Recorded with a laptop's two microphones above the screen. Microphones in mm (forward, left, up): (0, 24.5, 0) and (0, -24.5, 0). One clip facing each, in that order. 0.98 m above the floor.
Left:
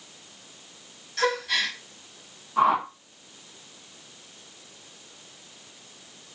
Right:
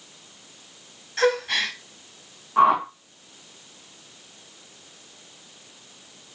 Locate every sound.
1.2 s a gasp: 35° right (ahead or behind), 2 m
2.6 s a whoosh: 30° right (ahead or behind), 1.4 m